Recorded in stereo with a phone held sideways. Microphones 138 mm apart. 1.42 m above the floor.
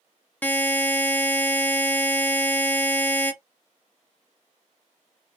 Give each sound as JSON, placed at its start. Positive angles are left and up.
{"t": 0.4, "sound": "a buzzer", "side_deg": 10, "distance_m": 0.6}